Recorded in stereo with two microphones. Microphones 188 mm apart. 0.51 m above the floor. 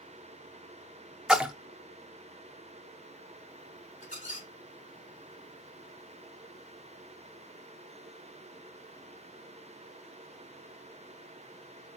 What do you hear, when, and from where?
1.3 s a splash: 5° right (ahead or behind), 0.7 m
4.0 s a squeak: 40° left (ahead or behind), 1.8 m